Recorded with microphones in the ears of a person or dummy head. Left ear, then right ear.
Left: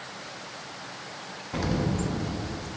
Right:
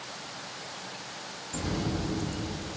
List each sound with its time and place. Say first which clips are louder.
1.5 s an explosion: left 4 dB; 55° left (ahead or behind), 0.5 m